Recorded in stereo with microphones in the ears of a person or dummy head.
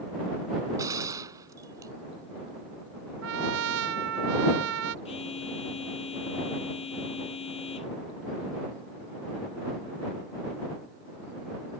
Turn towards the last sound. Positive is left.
turn(degrees=30)  # may be behind; listen again after turning